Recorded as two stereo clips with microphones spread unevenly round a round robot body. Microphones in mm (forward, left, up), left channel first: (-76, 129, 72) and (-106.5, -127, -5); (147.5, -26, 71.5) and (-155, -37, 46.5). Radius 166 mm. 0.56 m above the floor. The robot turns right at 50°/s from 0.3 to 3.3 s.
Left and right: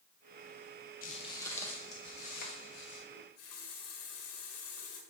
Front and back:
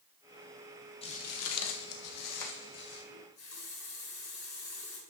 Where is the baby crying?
No baby crying in this recording.